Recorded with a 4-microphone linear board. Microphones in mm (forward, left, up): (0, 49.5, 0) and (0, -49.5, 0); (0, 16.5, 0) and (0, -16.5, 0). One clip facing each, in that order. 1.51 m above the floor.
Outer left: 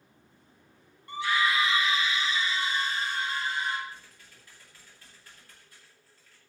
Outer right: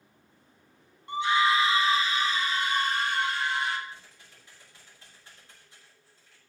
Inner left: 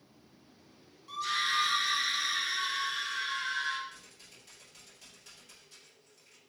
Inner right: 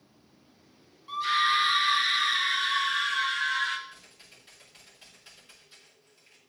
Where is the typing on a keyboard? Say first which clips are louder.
Even, inner right 1 dB; 25° right (ahead or behind), 7 m.